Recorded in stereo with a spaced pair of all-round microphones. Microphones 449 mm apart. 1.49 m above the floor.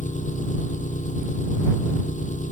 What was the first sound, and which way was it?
An engine running, 15° left (ahead or behind).